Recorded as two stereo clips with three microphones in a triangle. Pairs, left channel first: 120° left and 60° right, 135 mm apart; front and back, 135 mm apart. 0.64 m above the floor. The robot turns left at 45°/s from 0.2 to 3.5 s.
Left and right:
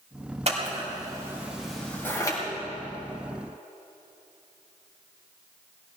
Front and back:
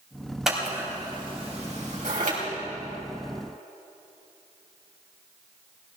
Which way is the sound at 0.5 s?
95° right.